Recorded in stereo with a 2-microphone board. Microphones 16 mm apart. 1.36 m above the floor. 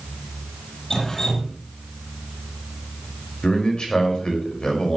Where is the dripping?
50° left (ahead or behind), 6.5 m.